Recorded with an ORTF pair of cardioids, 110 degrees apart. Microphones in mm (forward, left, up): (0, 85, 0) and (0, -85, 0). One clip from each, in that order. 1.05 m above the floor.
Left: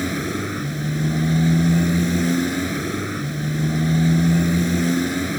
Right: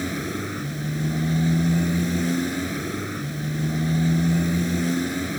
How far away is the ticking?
I don't hear ticking.